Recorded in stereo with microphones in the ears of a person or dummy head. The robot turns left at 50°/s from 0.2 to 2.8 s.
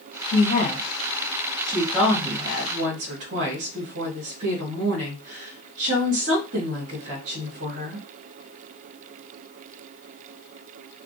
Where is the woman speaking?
70° left, 1.2 m; by 8.1 s 55° right, 1.2 m.